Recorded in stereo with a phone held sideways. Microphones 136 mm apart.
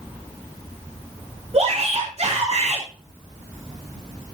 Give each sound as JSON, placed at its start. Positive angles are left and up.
{"t": 1.5, "sound": "a shout", "side_deg": -50, "distance_m": 3.0}